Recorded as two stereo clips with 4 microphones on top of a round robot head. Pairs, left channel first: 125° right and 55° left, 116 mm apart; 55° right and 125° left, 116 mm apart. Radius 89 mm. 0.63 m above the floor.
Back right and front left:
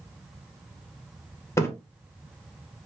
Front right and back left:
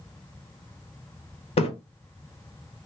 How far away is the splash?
About 1.4 m.